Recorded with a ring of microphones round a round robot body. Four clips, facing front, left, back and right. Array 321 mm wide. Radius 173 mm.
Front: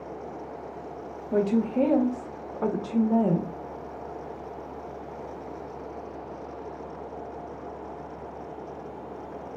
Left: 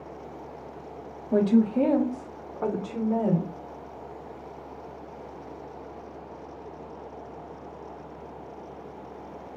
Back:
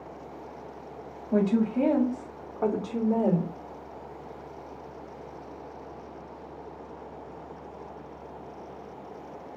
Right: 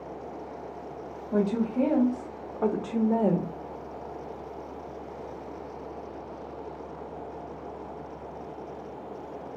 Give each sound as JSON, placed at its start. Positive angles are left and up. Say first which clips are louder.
{"t": 1.3, "sound": "a woman speaking", "louder": "left 5 dB, even", "azimuth_deg": 65, "distance_m": 1.4}